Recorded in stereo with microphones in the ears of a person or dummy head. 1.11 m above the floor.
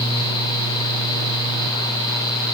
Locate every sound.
Only background noise.